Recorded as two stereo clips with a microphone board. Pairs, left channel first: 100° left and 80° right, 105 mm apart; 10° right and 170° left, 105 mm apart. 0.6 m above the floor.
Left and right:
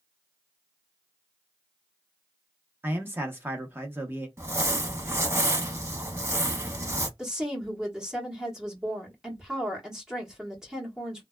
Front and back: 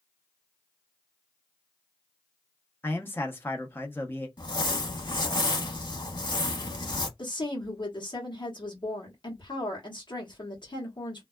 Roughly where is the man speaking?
Ahead right.